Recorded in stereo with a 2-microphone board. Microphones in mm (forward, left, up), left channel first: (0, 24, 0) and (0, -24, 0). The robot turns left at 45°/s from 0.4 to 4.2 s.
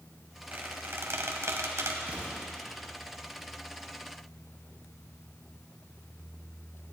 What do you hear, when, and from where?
0.5 s a squeak: 40° right (ahead or behind), 1.2 m; by 2.0 s 75° right (ahead or behind), 1.2 m
2.1 s an explosion: 40° right (ahead or behind), 3.5 m; by 2.4 s 50° right (ahead or behind), 3.5 m